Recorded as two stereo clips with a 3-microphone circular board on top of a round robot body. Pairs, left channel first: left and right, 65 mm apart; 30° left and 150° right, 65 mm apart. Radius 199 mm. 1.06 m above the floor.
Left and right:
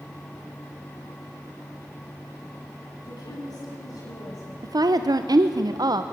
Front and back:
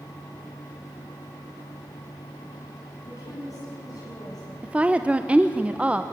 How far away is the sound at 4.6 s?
About 0.9 m.